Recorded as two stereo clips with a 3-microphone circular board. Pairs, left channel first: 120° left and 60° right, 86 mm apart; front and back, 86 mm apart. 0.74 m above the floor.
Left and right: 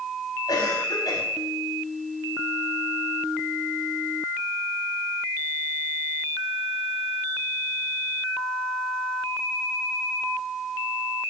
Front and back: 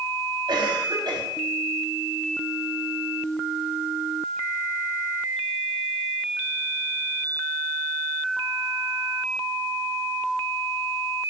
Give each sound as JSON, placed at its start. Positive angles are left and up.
{"t": 0.5, "sound": "a cough", "azimuth_deg": 155, "distance_m": 5.5}